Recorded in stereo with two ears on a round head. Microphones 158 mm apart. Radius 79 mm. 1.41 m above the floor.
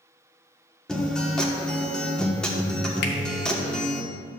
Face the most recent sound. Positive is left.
turn(degrees=60)  # may be behind; listen again after turning